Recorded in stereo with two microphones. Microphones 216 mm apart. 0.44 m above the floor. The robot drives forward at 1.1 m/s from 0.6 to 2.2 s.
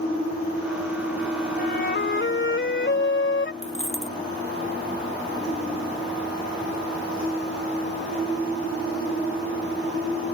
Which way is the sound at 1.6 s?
45° left (ahead or behind).